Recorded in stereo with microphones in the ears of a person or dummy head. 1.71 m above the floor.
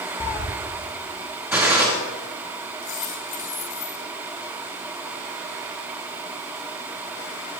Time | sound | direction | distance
0.2 | a cat meowing | 25° left (ahead or behind) | 1.7 m
1.5 | a gunshot | 10° right (ahead or behind) | 3.5 m
2.8 | a dropped coin | 45° left (ahead or behind) | 7.5 m